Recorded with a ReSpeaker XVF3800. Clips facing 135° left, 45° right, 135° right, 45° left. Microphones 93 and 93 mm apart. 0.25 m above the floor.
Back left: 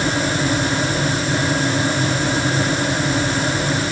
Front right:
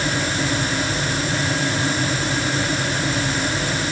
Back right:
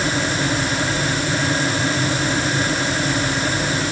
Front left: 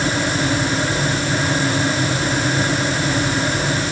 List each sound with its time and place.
Only background noise.